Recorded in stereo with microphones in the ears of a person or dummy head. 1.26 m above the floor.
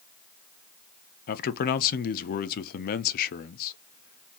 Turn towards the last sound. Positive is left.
turn(degrees=45)  # may be behind; listen again after turning